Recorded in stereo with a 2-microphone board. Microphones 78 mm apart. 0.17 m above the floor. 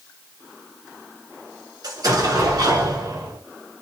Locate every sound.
1.8 s an explosion: 55° right (ahead or behind), 1.9 m